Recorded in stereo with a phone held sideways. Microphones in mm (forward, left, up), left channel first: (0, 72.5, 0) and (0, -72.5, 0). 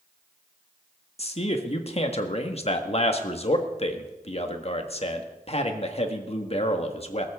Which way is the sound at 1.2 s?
45° left (ahead or behind).